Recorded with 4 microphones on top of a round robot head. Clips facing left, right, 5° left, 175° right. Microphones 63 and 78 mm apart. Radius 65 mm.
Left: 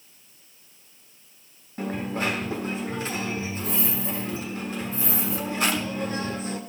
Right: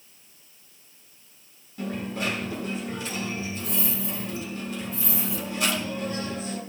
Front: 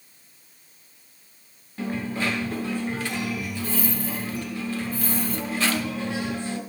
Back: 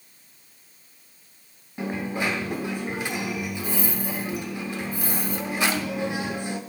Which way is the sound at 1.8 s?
130° left.